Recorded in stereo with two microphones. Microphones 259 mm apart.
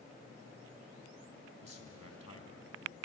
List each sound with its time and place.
1.6 s a man speaking: 65° left (ahead or behind), 3 m